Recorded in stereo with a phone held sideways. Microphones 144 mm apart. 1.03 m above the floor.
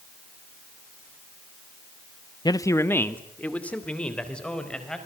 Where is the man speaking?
30° left (ahead or behind), 0.8 m; by 5.0 s 5° left (ahead or behind), 4.5 m.